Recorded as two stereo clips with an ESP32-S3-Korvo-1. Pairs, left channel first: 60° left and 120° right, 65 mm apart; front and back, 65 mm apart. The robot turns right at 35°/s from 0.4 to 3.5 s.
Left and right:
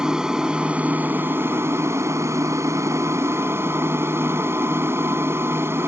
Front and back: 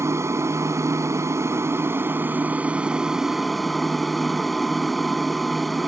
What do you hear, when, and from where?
0.0 s an aircraft: 165° left; by 5.9 s 90° right